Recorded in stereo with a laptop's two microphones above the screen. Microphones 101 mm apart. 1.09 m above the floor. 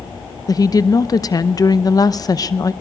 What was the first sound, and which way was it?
A woman speaking, 40° left (ahead or behind).